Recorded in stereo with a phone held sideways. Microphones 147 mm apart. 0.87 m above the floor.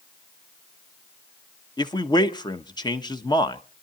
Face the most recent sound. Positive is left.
turn(degrees=30)  # may be behind; listen again after turning